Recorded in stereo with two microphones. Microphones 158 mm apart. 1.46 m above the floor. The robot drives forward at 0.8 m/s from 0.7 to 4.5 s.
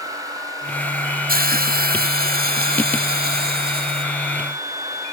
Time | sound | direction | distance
1.3 | a hiss | 70° right (ahead or behind) | ?